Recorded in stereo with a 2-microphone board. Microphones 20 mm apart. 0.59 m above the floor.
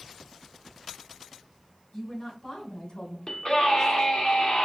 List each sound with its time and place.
1.9 s a woman speaking: 35° left (ahead or behind), 2 m; by 3.2 s 45° left (ahead or behind), 1.5 m
3.3 s a scream: 45° left (ahead or behind), 1.6 m